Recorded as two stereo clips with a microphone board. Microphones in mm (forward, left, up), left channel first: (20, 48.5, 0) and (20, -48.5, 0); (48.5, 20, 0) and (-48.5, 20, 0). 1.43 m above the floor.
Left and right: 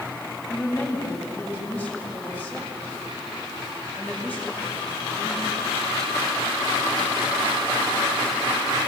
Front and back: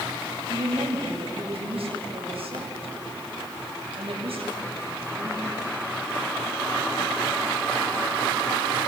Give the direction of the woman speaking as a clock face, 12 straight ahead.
7 o'clock.